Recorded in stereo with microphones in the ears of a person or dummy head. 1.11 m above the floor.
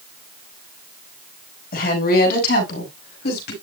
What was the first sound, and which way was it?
A woman speaking, 55° left (ahead or behind).